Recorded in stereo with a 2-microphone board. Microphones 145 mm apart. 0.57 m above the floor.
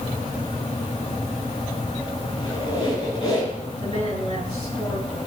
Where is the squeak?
40° left (ahead or behind), 7.5 m.